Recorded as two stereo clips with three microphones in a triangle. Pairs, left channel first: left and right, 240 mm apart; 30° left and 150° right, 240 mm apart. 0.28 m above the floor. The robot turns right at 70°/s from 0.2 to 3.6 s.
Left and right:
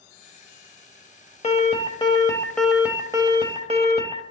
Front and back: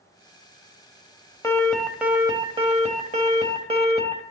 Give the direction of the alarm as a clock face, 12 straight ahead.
9 o'clock.